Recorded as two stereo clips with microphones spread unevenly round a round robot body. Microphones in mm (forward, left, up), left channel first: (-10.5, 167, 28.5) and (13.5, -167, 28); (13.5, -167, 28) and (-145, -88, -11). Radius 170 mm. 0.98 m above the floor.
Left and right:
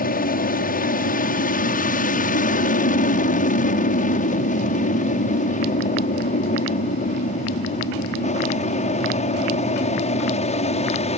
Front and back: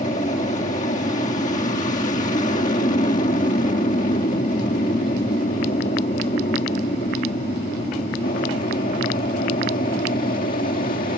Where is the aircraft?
35° left; by 11.2 s 25° left.